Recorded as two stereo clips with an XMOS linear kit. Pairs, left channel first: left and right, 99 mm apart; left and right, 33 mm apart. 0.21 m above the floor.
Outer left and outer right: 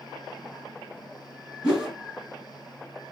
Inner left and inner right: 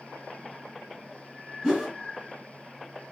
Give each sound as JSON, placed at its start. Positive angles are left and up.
{"t": 1.6, "sound": "a whoosh", "side_deg": -5, "distance_m": 2.5}